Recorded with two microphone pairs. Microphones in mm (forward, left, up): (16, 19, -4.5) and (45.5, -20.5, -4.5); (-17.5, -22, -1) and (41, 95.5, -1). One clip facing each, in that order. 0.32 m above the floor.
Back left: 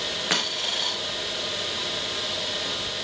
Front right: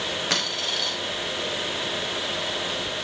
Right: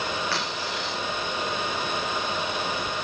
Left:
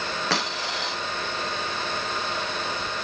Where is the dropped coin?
50° left, 8 m.